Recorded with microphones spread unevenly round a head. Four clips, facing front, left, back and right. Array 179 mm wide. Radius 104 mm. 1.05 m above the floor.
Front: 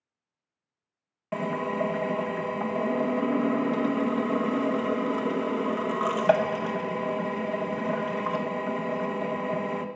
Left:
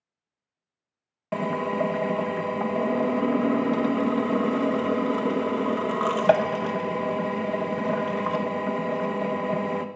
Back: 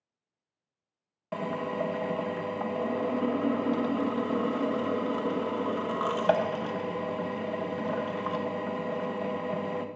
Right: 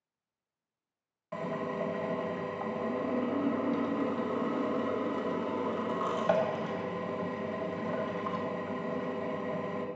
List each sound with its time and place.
1.3 s a drill: 60° left, 1.2 m